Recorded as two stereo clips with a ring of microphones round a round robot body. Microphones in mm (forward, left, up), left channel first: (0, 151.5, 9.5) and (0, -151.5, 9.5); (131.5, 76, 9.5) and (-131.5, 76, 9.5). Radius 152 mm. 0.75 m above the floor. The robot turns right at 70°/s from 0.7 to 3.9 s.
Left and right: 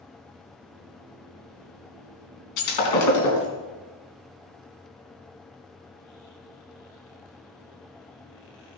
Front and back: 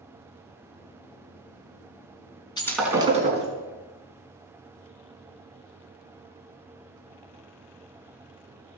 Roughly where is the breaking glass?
Left.